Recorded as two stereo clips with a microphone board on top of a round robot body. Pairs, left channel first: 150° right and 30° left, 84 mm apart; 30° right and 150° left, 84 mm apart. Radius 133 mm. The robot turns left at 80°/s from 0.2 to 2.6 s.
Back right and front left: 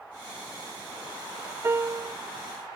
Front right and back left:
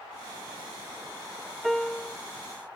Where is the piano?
60° left; by 2.2 s 20° left.